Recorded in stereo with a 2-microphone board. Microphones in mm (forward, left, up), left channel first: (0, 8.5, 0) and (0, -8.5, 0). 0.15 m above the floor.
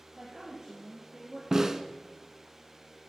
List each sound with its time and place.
0.2 s a woman speaking: 50° right (ahead or behind), 2.5 m; by 1.4 s 40° right (ahead or behind), 3 m
1.5 s a snare drum: 30° right (ahead or behind), 0.6 m